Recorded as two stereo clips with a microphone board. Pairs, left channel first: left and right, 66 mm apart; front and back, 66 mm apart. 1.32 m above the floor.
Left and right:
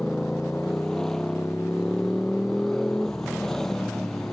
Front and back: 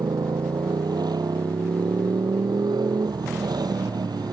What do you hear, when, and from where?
0.0 s a motorcycle: 175° left